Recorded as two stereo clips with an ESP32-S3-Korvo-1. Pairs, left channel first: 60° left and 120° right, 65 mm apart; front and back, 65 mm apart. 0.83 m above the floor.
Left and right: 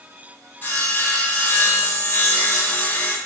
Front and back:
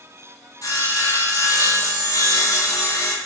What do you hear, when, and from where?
0.6 s sawing: straight ahead, 1.3 m